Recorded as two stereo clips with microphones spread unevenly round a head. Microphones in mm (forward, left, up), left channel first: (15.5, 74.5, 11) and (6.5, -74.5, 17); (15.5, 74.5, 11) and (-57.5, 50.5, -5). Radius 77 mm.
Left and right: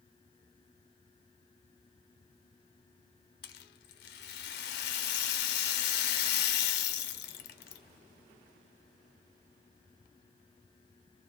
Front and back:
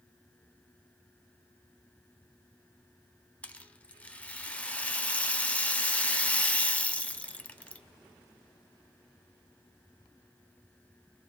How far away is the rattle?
About 0.5 m.